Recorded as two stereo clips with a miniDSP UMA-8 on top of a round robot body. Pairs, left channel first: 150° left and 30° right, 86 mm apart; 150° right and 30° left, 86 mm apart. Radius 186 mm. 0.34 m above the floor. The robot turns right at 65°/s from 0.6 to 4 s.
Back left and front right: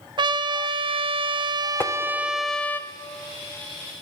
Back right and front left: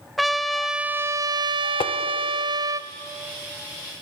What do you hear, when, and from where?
0.2 s a trumpet: 60° right, 0.5 m; by 2.8 s 85° left, 0.5 m
1.8 s tapping: 145° right, 0.5 m; by 1.9 s 135° right, 0.5 m